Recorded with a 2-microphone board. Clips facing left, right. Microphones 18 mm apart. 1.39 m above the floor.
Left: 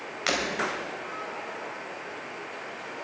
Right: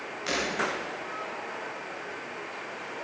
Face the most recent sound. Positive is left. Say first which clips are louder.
# left 3 dB
turn(degrees=40)  # may be behind; listen again after turning